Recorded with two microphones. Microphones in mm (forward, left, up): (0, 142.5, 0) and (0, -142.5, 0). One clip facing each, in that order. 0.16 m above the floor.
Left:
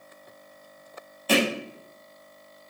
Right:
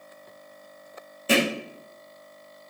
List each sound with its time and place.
1.3 s hammering: 25° right (ahead or behind), 3.5 m